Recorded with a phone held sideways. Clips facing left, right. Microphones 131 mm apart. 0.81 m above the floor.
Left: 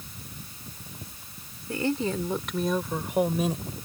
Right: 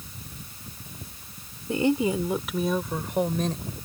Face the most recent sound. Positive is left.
turn(degrees=10)  # may be behind; listen again after turning